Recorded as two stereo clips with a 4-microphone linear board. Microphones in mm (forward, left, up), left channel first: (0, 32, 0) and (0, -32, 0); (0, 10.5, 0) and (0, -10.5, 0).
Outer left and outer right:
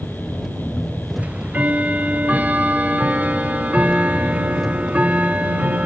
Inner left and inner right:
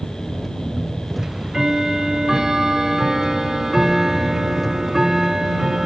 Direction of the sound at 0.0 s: Centre (ahead or behind).